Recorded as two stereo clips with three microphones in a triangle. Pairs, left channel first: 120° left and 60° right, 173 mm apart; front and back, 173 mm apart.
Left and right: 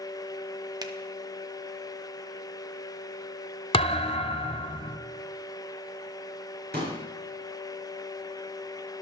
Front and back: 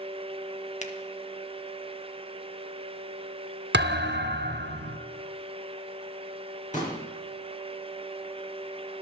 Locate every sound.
0.8 s a finger snap: 5° right, 1.0 m
3.7 s a thud: straight behind, 1.1 m
6.7 s a pop: 45° right, 4.5 m